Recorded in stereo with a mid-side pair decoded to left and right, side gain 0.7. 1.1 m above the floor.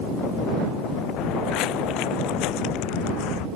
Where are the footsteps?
60° left; by 3.5 s 65° left.